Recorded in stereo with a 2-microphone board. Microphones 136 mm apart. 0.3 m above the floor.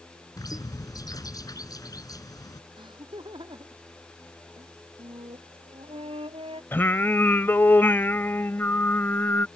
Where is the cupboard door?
I don't hear a cupboard door.